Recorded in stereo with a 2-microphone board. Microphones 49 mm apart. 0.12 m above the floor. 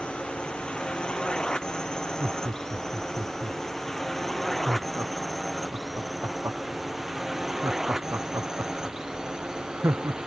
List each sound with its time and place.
0.0 s a drone: 25° left (ahead or behind); by 10.3 s 15° right (ahead or behind)
2.2 s laughter: 55° right (ahead or behind)